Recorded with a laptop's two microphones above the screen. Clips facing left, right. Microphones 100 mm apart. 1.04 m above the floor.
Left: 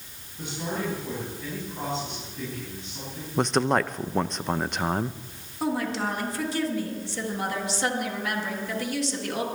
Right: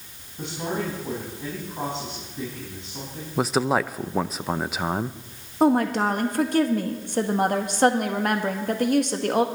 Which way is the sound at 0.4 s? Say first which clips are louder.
Right 3 dB; 25° right (ahead or behind).